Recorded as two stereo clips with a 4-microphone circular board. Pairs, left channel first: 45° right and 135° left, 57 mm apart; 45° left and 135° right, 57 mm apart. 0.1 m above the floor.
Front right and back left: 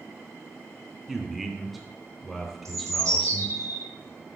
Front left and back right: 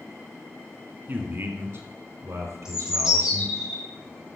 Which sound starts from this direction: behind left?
A bird, at 2.6 s.